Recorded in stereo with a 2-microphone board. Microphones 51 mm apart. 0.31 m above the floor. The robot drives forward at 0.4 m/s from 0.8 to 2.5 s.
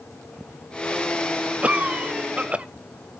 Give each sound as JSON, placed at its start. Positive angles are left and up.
{"t": 1.6, "sound": "a cough", "side_deg": -25, "distance_m": 0.9}